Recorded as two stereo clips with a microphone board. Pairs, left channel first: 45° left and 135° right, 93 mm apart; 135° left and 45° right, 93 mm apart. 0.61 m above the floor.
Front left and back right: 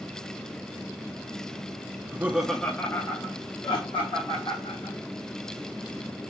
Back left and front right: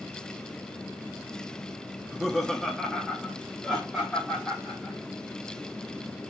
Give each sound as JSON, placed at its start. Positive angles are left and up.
{"t": 2.0, "sound": "laughter", "azimuth_deg": -140, "distance_m": 0.6}